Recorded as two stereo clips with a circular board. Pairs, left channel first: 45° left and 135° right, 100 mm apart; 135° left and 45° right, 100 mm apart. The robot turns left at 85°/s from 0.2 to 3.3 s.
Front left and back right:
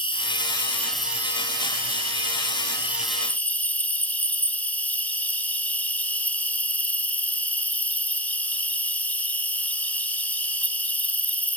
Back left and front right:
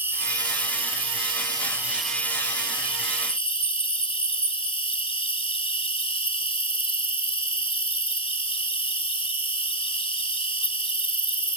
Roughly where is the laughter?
I don't hear laughter.